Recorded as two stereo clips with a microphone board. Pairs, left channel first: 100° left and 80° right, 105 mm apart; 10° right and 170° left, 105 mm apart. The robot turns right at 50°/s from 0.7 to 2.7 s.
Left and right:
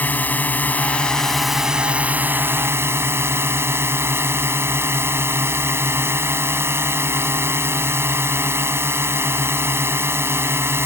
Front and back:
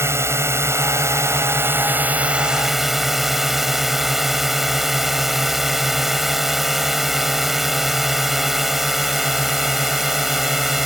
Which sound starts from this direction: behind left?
A drone, at 0.0 s.